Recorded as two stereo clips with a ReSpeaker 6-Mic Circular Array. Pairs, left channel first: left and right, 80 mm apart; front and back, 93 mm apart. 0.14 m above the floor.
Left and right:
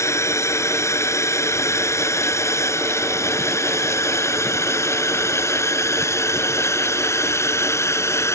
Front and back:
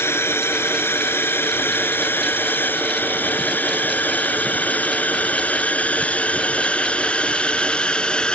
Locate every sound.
0.0 s a drone: 55° left; by 8.3 s 75° left